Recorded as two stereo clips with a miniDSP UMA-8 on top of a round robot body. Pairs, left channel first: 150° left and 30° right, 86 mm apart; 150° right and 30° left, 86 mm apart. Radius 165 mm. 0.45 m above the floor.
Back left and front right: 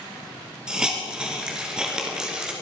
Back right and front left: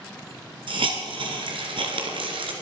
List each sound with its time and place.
0.7 s a hiss: 50° left, 2 m